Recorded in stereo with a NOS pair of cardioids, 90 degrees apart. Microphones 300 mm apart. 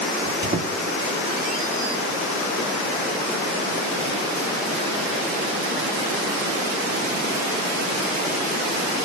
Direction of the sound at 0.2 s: 35° right.